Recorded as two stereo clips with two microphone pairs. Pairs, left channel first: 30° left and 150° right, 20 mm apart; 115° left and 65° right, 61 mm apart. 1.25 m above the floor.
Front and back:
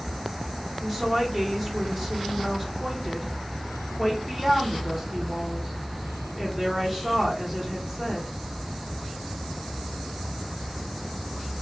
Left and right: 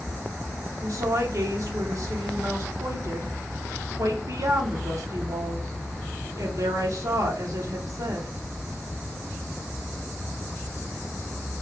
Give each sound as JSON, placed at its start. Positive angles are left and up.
{"t": 0.8, "sound": "a woman speaking", "azimuth_deg": -55, "distance_m": 1.0}